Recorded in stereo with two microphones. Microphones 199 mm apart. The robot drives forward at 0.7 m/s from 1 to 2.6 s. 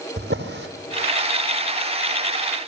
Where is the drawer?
60° right (ahead or behind), 2.5 m.